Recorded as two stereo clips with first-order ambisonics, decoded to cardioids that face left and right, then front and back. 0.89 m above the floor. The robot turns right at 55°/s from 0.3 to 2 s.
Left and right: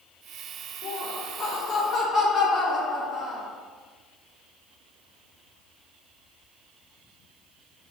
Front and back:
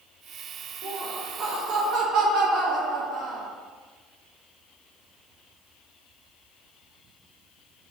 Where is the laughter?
105° left, 0.7 m; by 3.5 s 170° left, 0.7 m.